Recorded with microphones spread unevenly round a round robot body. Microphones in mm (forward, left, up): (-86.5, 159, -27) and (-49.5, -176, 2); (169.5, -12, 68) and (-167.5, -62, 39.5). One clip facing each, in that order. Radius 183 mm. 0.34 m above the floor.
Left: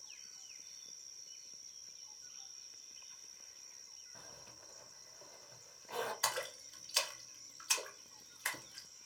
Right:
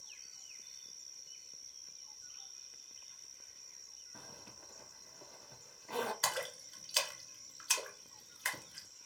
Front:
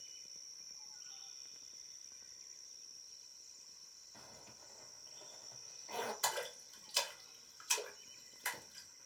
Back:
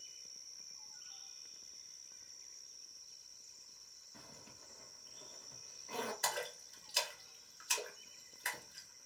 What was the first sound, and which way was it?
A zipper, 100° right.